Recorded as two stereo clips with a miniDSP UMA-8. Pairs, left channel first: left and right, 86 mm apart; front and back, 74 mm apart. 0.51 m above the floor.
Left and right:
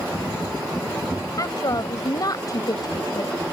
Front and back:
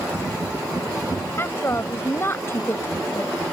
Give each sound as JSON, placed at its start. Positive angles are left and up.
{"t": 1.4, "sound": "a woman speaking", "azimuth_deg": 55}